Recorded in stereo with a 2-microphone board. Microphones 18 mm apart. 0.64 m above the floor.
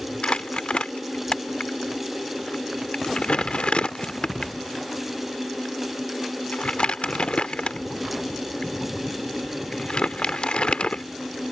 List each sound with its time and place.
0.2 s crumpling: 70° left (ahead or behind)